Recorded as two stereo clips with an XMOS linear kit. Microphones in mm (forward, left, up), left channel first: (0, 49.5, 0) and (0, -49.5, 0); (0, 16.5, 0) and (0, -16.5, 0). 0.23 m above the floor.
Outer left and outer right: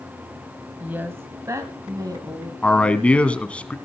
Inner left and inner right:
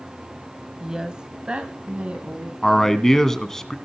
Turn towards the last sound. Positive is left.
turn(degrees=10)  # may be behind; listen again after turning